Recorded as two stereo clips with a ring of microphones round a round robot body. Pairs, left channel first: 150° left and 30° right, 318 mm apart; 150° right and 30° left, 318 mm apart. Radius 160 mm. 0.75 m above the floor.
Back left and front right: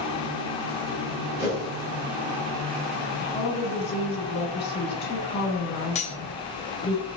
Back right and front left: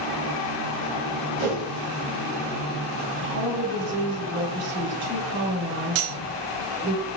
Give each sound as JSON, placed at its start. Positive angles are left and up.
{"t": 1.4, "sound": "a whoosh", "azimuth_deg": 35, "distance_m": 1.8}
{"t": 3.2, "sound": "a woman speaking", "azimuth_deg": 85, "distance_m": 2.0}
{"t": 6.0, "sound": "cutlery clinking", "azimuth_deg": 80, "distance_m": 0.6}